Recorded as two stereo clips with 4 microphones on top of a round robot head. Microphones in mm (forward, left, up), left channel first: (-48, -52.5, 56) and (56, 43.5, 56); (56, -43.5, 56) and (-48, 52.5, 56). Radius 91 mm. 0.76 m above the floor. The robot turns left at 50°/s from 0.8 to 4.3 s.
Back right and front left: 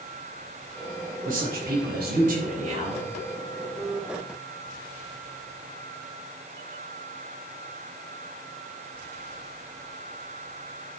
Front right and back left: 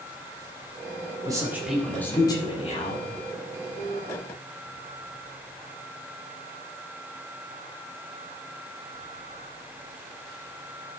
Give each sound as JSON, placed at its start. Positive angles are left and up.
{"t": 1.2, "sound": "a man speaking", "azimuth_deg": 75, "distance_m": 4.0}